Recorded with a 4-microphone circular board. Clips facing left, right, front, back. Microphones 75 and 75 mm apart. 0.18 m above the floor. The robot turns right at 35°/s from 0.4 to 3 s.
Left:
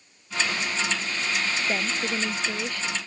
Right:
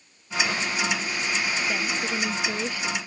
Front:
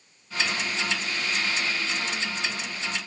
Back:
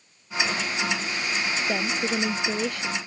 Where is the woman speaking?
155° left; by 3.0 s 160° right.